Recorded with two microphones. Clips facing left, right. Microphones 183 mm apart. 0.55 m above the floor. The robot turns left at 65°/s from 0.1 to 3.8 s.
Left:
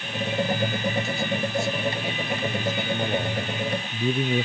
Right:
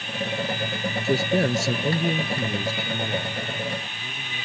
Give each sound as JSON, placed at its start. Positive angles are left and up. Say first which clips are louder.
{"t": 1.0, "sound": "a man speaking", "louder": "right 6 dB", "azimuth_deg": -65}